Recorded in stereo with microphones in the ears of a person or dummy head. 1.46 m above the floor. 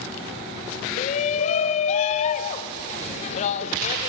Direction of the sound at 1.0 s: 40° left (ahead or behind).